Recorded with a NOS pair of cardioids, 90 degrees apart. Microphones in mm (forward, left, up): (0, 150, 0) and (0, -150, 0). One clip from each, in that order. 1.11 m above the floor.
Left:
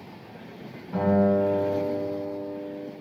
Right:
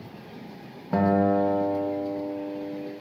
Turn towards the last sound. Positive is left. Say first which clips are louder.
# even
turn(degrees=-55)